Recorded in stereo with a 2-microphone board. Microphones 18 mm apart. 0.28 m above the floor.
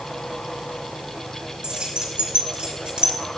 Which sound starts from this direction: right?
Keys jangling, at 1.6 s.